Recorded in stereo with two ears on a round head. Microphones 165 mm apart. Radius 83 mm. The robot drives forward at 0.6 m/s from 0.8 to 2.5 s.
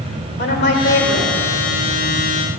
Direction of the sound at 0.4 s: 65° left (ahead or behind).